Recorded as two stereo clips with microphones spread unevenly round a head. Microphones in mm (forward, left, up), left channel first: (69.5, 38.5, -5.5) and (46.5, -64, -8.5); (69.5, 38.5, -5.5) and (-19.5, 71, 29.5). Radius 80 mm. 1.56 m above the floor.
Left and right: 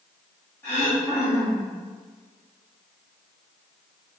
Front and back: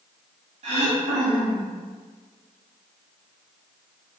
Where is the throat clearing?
155° left, 1.0 m.